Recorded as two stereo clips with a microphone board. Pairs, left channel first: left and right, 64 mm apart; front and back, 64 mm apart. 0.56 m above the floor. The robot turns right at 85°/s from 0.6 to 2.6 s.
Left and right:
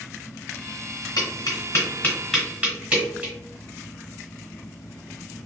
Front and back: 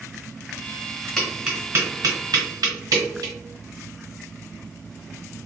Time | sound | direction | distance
1.2 | tapping | 80° left | 1.6 m